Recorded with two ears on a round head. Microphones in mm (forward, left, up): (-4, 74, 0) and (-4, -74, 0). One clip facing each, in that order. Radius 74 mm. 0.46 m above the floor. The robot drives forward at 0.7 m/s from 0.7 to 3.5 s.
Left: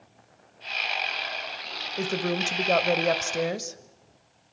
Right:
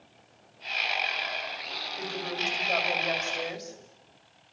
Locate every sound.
2.0 s a woman speaking: 55° left (ahead or behind), 2 m; by 3.8 s 60° left (ahead or behind), 2.0 m